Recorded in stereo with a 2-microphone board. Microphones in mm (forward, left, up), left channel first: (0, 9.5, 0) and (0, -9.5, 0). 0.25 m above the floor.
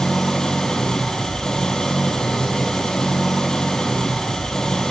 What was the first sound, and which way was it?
An engine running, 35° left (ahead or behind).